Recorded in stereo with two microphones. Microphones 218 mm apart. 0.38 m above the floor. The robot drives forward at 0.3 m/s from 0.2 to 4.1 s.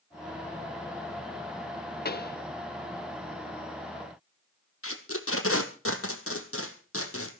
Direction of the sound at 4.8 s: 85° left.